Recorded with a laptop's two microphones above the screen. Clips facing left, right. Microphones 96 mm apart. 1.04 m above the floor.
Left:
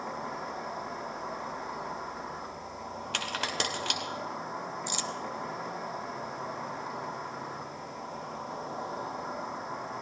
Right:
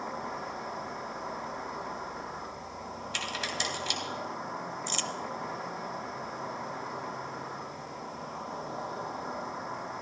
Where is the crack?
80° left, 2 m.